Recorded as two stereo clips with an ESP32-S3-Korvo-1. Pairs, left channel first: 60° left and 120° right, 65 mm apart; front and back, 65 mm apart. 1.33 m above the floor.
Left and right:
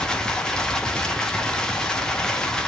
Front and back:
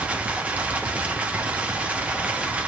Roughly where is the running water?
Behind left.